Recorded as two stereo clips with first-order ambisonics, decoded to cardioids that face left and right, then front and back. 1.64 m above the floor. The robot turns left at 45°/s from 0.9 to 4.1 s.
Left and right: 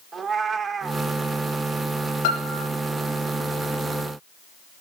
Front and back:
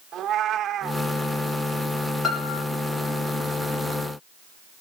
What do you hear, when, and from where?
0.1 s a cat meowing: 165° right, 1.0 m; by 1.0 s 170° right, 1.0 m
2.2 s a piano: 85° left, 3 m; by 2.6 s 65° left, 3 m